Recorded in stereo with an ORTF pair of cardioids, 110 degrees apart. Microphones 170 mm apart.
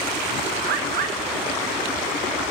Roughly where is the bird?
Right.